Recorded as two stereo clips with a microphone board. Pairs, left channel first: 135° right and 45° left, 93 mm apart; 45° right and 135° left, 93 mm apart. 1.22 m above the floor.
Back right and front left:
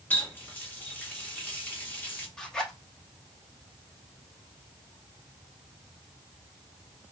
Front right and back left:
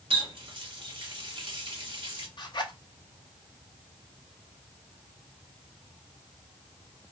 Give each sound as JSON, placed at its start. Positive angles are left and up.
{"t": 0.1, "sound": "a running tap", "azimuth_deg": 155, "distance_m": 1.4}
{"t": 2.4, "sound": "a zipper", "azimuth_deg": -55, "distance_m": 0.9}